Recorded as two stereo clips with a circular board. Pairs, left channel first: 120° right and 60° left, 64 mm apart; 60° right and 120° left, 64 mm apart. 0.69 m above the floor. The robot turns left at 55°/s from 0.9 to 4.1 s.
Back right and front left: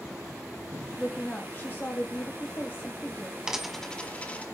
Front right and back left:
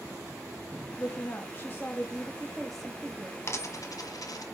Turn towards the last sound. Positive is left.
turn(degrees=-55)